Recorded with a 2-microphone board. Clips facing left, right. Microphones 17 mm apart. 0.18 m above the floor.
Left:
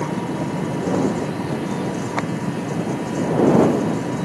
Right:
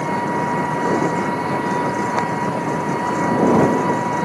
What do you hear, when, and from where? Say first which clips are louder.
0.0 s an engine running: right 4 dB; 85° right